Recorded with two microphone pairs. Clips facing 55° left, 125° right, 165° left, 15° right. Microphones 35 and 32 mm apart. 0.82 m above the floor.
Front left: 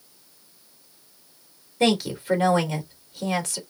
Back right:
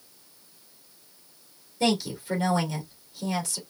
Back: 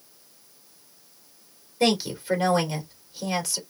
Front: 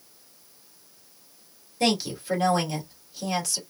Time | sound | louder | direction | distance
1.8 | a woman speaking | front left 4 dB, back 2 dB | 85° left | 2.5 m